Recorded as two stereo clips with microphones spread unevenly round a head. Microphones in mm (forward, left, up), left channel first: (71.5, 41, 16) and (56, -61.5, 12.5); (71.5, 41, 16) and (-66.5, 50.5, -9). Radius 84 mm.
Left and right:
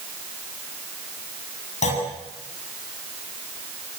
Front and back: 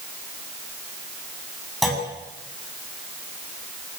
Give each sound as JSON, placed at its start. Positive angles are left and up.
{"t": 1.8, "sound": "a clunk", "azimuth_deg": 85, "distance_m": 7.5}